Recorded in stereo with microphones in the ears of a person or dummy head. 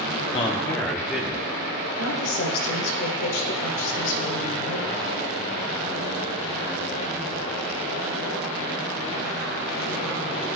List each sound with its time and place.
0.3 s a man speaking: 35° left (ahead or behind), 0.7 m; by 1.9 s 20° right (ahead or behind), 1.0 m
2.0 s a woman speaking: 75° left (ahead or behind), 1.4 m